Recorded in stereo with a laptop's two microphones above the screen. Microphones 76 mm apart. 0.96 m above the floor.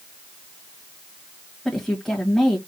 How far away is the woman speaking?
About 1.5 m.